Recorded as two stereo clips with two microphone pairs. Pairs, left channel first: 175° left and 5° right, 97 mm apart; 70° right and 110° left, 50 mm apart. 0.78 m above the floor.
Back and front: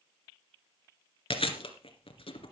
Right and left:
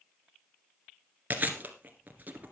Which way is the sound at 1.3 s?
165° left.